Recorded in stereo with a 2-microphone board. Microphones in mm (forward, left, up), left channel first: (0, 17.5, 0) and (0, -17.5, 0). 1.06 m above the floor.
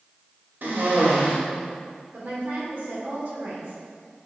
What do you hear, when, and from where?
0.6 s a cough: 65° right (ahead or behind), 1.9 m
2.1 s a woman speaking: 55° right (ahead or behind), 2.5 m